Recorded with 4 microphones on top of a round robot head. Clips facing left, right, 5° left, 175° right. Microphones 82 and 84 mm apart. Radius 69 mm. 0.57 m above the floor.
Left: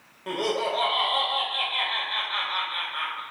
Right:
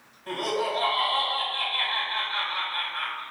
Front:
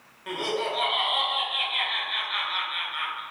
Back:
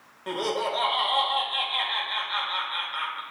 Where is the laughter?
125° left, 2.5 m.